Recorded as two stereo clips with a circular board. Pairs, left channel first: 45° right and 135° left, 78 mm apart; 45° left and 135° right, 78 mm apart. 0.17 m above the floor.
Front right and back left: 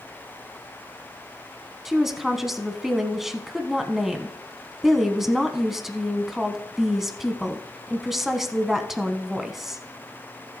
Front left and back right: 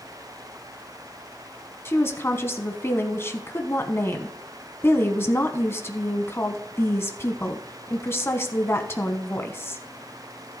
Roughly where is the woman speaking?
Ahead left.